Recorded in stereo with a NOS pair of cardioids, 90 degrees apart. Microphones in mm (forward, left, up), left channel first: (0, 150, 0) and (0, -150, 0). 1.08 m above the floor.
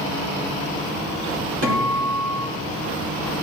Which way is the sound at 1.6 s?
50° right.